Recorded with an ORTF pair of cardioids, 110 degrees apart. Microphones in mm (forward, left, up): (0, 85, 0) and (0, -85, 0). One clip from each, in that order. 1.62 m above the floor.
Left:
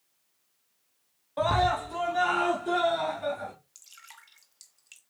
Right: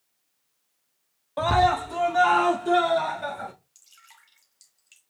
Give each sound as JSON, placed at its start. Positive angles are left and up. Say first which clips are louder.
{"t": 1.4, "sound": "a scream", "louder": "right 4 dB", "azimuth_deg": -20, "distance_m": 0.7}
{"t": 3.8, "sound": "dripping", "louder": "left 3 dB", "azimuth_deg": 20, "distance_m": 1.1}